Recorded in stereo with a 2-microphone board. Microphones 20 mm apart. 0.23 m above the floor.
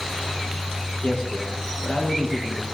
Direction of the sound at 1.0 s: 55° left (ahead or behind).